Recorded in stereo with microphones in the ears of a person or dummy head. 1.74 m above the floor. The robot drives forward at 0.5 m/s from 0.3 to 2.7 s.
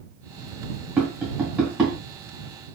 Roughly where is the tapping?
Centre.